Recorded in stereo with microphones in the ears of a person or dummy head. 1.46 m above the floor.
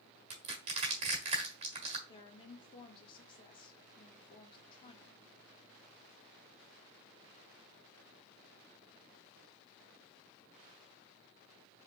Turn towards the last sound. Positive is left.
turn(degrees=30)  # may be behind; listen again after turning